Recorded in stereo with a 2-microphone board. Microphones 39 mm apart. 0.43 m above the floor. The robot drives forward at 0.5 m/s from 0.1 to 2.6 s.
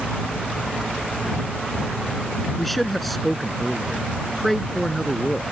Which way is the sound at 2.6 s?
5° left (ahead or behind).